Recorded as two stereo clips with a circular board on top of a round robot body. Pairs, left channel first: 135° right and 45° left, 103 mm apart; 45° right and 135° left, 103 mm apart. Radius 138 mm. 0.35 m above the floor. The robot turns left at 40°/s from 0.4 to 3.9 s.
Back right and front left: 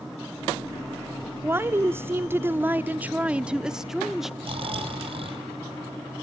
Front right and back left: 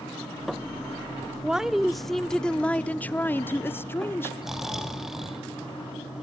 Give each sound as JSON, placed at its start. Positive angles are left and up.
{"t": 1.4, "sound": "a woman speaking", "azimuth_deg": 65, "distance_m": 0.8}
{"t": 4.4, "sound": "snoring", "azimuth_deg": 50, "distance_m": 2.5}